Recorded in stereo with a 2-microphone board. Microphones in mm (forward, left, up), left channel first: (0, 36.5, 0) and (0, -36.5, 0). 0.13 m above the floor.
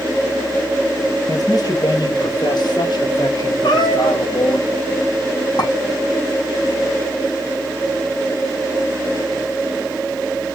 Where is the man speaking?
50° left (ahead or behind), 2 m; by 4.6 s 60° left (ahead or behind), 4 m.